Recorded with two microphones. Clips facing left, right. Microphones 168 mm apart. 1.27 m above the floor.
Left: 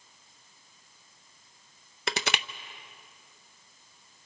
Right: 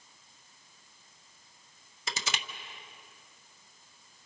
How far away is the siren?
No siren in this recording.